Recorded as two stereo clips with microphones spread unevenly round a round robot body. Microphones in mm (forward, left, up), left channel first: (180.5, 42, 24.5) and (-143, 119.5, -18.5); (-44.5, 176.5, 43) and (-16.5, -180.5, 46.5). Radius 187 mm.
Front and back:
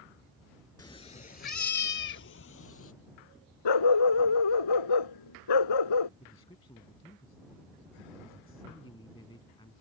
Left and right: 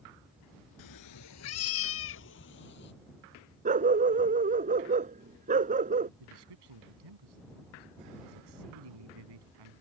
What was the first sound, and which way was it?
A cat meowing, 60° left.